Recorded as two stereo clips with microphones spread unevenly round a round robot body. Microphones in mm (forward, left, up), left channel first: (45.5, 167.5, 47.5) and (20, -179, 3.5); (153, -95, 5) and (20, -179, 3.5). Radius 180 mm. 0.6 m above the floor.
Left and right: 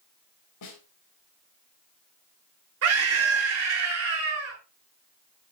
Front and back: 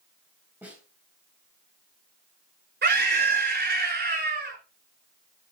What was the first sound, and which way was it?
A snare drum, 130° left.